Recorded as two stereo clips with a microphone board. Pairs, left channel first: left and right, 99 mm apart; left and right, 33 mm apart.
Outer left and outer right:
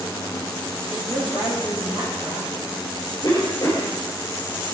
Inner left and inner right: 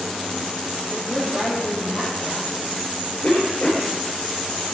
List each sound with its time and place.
0.9 s a woman speaking: 15° right (ahead or behind), 6 m
3.2 s a cough: 40° left (ahead or behind), 3 m